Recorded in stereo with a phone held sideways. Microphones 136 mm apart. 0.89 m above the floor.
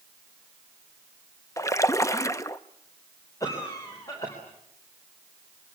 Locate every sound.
1.6 s a splash: 25° left (ahead or behind), 0.7 m
3.4 s a cough: 25° left (ahead or behind), 4 m